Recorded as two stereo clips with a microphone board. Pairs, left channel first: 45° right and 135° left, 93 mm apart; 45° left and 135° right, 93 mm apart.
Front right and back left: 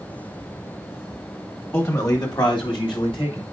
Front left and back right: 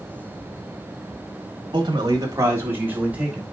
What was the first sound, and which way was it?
A man speaking, 105° right.